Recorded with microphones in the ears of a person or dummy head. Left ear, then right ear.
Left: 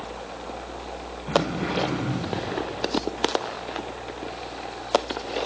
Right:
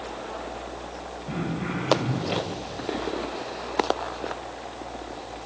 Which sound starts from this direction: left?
Throat clearing, at 1.3 s.